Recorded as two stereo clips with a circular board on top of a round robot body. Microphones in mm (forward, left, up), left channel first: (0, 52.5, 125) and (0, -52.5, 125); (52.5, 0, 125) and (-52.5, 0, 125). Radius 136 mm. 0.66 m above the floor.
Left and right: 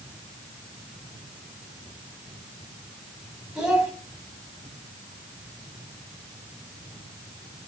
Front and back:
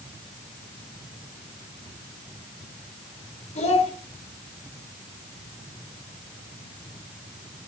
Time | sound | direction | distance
3.5 | a child speaking | 5° right | 4 m